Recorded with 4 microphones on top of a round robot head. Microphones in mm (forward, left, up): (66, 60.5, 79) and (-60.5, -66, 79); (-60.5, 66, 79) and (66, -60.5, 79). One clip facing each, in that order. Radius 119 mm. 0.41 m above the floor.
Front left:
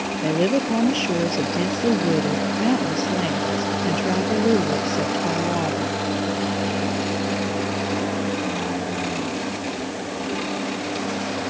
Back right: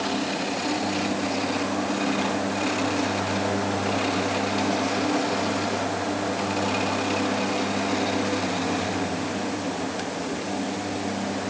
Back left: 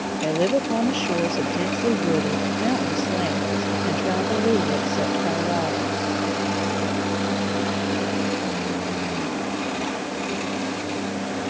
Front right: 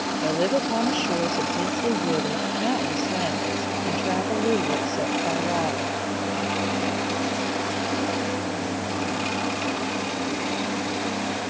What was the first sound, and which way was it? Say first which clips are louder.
A woman speaking: front left 8 dB, back left 2 dB; 60° left.